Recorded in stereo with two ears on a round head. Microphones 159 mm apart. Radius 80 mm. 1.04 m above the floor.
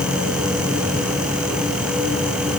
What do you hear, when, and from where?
Only background noise.